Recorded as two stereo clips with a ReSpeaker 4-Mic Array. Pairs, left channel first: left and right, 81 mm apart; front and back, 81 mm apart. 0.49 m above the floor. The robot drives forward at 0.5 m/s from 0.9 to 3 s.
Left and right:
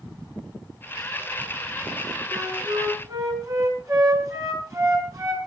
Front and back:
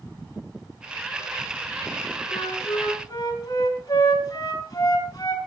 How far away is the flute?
About 5.5 m.